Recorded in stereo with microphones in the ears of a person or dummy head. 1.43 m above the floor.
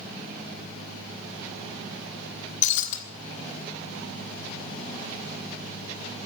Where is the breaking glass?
45° left (ahead or behind), 1.6 m.